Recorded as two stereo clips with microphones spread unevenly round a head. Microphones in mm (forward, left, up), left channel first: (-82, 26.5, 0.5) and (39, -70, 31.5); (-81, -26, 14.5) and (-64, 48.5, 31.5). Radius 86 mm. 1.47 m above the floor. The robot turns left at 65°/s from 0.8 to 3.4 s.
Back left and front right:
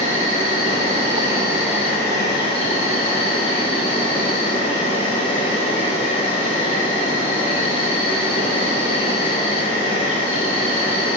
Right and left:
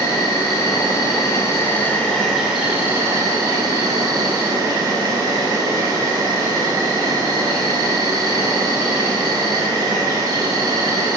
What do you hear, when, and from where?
0.0 s an insect: 80° right, 1.1 m; by 11.2 s 110° left, 1.1 m